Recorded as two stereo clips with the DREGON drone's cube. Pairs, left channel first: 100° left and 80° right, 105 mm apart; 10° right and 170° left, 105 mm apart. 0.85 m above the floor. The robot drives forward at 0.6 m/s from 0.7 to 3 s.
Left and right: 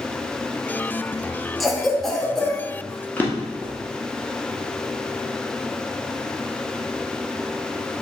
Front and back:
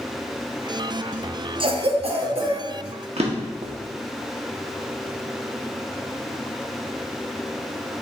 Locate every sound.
1.6 s a cough: 170° right, 0.6 m; by 2.6 s 175° right, 1.2 m
3.2 s a drawer: 170° left, 0.7 m